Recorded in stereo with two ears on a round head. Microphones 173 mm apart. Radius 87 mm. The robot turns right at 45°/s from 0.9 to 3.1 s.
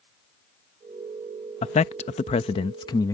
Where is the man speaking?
35° left (ahead or behind); by 3.1 s 20° left (ahead or behind).